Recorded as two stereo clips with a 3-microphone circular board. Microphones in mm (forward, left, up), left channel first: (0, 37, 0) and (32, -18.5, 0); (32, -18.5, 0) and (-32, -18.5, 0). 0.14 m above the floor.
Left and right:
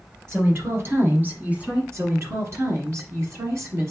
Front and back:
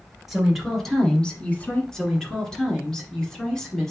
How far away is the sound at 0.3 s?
About 2 m.